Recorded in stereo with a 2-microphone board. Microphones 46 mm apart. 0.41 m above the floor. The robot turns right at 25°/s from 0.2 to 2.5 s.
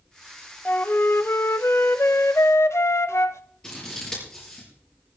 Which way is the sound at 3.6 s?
15° left (ahead or behind).